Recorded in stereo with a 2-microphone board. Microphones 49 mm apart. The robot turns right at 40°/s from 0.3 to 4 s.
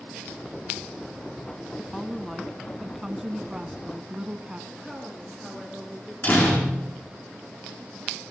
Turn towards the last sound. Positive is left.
turn(degrees=45)  # may be behind; listen again after turning